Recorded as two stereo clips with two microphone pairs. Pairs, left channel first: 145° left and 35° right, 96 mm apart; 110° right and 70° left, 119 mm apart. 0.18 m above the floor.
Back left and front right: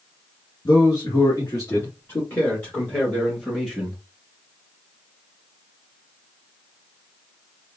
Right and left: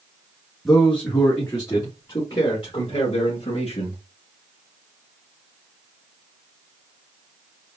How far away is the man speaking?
About 2 m.